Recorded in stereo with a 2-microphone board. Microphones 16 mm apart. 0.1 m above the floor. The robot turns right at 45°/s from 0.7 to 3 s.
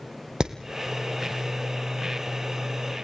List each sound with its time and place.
0.4 s hammering: 75° right (ahead or behind), 2 m